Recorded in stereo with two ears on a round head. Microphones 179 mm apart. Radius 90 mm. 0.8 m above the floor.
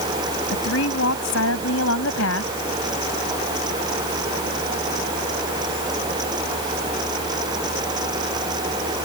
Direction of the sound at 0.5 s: 75° left (ahead or behind).